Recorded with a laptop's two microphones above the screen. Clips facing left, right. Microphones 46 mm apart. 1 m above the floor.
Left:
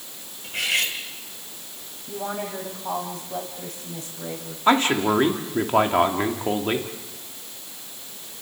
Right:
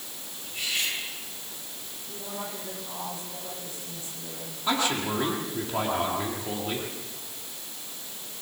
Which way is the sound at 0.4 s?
75° left (ahead or behind).